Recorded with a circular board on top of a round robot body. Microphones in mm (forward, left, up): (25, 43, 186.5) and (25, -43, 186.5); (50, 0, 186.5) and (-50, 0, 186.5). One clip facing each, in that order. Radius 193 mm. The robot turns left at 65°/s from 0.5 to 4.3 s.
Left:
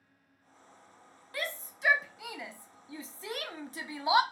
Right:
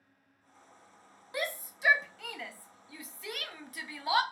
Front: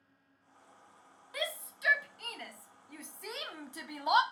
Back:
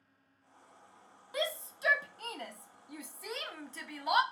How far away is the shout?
About 0.7 m.